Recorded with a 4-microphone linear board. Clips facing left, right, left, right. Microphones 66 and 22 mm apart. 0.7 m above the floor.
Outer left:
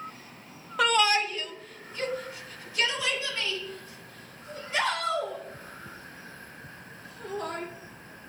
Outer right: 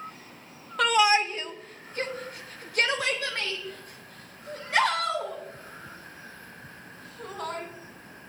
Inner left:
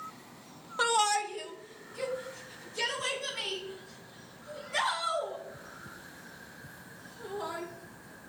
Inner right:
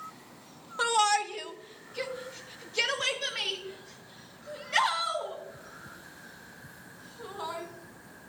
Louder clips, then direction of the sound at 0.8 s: Outer right 2 dB, inner right 2 dB; 5° left (ahead or behind).